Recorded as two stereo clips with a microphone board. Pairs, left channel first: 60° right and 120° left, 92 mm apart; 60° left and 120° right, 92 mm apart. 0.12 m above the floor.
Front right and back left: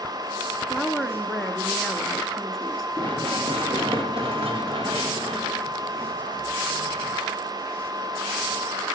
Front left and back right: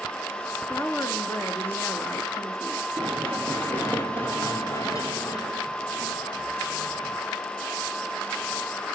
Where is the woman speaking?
30° left, 1.3 m.